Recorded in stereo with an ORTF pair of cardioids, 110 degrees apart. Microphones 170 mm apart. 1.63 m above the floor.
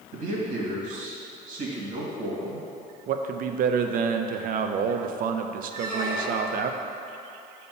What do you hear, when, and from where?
0.1 s a man speaking: 55° right, 2 m
3.1 s a man speaking: 60° right, 0.6 m
5.7 s a squeak: 60° right, 1.7 m